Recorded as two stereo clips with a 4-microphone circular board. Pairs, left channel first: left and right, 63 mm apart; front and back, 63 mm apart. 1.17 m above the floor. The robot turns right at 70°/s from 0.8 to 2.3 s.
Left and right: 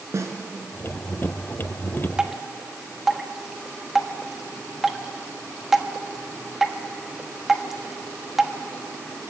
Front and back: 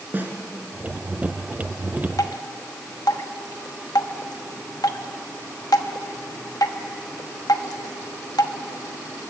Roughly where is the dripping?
Ahead.